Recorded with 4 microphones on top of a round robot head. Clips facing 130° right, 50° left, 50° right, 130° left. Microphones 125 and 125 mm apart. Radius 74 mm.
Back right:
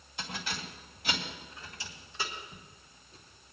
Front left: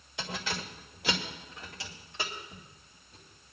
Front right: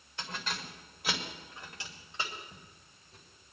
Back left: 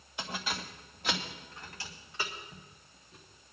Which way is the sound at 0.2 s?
50° left.